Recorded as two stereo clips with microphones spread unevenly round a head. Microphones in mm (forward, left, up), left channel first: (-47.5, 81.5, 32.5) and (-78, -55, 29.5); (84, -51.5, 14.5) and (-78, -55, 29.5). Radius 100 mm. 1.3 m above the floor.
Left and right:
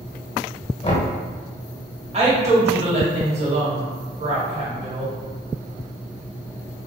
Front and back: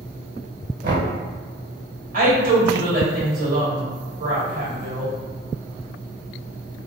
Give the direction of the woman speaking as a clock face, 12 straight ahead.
5 o'clock.